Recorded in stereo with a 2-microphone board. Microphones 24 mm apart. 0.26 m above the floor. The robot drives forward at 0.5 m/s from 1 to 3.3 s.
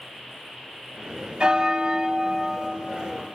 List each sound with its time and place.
1.4 s a bell: 45° right (ahead or behind), 0.8 m; by 2.7 s 30° right (ahead or behind), 1.2 m